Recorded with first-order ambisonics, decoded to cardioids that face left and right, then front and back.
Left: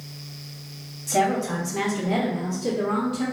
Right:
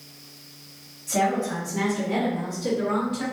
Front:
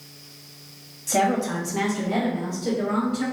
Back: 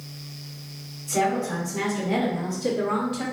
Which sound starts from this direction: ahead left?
A woman speaking, at 1.1 s.